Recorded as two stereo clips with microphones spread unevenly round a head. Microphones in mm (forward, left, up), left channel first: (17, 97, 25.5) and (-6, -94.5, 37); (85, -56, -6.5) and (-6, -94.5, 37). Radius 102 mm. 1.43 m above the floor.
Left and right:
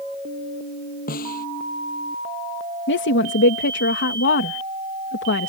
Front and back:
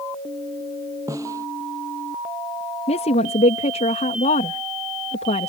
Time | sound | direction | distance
1.1 | a snare drum | 130° left | ?
2.9 | a woman speaking | 55° left | ?